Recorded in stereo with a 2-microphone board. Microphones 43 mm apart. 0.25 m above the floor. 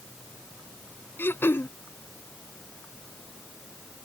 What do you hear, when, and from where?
1.2 s throat clearing: 60° left (ahead or behind)